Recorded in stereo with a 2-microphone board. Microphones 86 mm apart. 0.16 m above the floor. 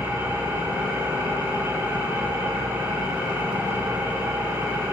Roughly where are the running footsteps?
I don't hear running footsteps.